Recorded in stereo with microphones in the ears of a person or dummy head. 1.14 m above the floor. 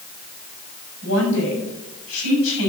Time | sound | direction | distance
1.0 | a woman speaking | 70° left (ahead or behind) | 6.5 m